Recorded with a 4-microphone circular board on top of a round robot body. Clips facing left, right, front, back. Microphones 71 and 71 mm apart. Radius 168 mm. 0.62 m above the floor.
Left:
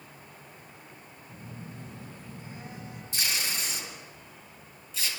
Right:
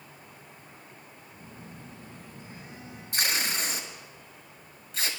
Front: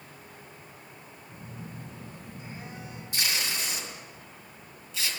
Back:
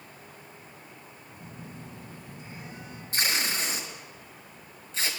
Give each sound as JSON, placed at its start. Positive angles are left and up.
{"t": 1.3, "sound": "a phone buzzing", "azimuth_deg": 55, "distance_m": 7.5}
{"t": 3.1, "sound": "tape being pulled", "azimuth_deg": -125, "distance_m": 5.0}